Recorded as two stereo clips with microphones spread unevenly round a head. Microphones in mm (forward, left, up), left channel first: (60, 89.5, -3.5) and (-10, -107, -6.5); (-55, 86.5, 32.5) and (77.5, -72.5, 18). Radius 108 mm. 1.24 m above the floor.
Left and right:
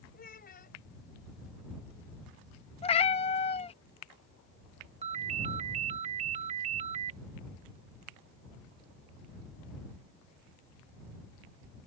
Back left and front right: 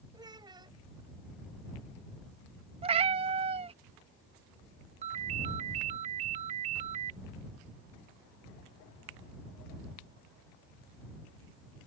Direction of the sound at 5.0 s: 90° right.